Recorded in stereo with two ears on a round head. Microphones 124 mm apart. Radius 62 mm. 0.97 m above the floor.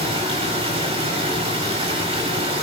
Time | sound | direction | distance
0.0 | running water | 45° right (ahead or behind) | 4 m